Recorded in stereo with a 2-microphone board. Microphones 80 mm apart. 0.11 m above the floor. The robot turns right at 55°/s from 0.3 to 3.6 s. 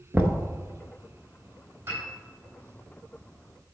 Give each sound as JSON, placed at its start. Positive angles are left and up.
{"t": 0.1, "sound": "knocking", "side_deg": -35, "distance_m": 1.0}
{"t": 1.9, "sound": "a piano", "side_deg": -30, "distance_m": 3.5}